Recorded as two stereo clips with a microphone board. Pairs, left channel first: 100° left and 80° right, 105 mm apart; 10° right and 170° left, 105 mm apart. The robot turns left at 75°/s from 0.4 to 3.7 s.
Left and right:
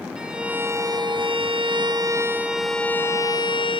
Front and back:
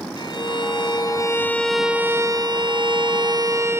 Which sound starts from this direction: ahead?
A violin, at 0.2 s.